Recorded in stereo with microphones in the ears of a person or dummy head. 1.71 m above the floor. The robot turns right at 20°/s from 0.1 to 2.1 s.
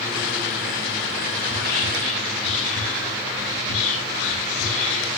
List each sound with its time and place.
1.4 s whispering: 65° left (ahead or behind), 2.5 m; by 5.1 s 55° left (ahead or behind), 2.5 m